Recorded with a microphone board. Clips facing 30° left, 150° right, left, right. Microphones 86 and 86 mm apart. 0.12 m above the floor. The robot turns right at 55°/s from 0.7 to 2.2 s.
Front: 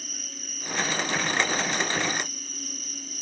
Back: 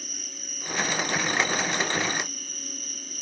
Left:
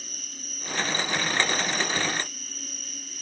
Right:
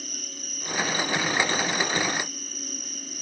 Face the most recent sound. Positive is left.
turn(degrees=-160)